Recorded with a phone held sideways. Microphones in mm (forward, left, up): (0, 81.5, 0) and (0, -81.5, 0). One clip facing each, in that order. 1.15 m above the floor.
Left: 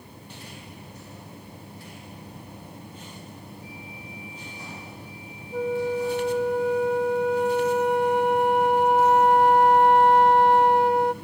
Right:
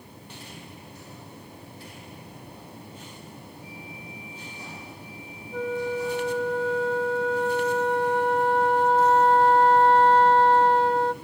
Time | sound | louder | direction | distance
5.5 | a flute | left 3 dB | 15° left (ahead or behind) | 1.9 m